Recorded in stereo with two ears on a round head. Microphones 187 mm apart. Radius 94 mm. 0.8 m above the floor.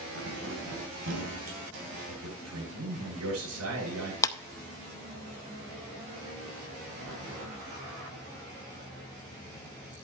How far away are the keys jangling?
About 3 m.